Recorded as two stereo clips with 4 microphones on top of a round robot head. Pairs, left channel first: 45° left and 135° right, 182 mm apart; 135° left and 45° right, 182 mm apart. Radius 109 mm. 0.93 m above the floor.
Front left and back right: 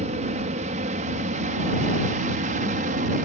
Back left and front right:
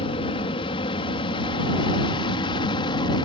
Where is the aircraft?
175° right; by 3.2 s 165° right.